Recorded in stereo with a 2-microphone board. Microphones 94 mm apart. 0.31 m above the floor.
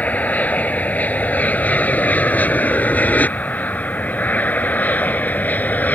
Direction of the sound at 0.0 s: 15° left (ahead or behind).